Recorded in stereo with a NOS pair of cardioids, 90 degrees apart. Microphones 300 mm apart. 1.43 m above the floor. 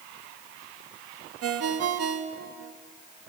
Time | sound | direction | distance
1.4 | a ringtone | 60° right | 1.6 m